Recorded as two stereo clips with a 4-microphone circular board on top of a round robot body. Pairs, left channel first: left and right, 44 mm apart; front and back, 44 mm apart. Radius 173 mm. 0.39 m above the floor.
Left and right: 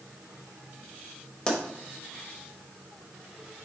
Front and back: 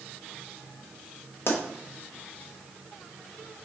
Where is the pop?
20° left, 1.0 m.